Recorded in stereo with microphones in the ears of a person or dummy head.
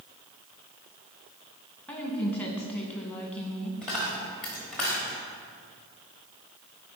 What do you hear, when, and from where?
1.9 s a woman speaking: 5° left (ahead or behind), 1.2 m
3.8 s a dropped coin: 5° left (ahead or behind), 1.1 m